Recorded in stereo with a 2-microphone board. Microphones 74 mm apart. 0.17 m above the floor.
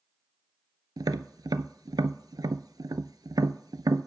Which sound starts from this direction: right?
Tapping, at 1.0 s.